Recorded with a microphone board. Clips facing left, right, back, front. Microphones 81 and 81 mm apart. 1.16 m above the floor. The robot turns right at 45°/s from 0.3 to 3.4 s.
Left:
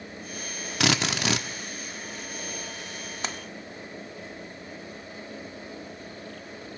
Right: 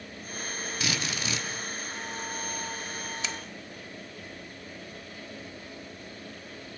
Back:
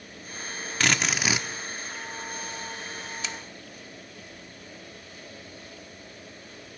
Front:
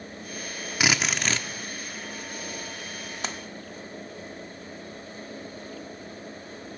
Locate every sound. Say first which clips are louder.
0.8 s a drill: left 9 dB, even; 80° left, 1.4 m; by 1.5 s 110° left, 1.4 m
3.2 s a splash: left 4 dB, front 5 dB; 45° left, 1.1 m; by 3.4 s 50° left, 1.1 m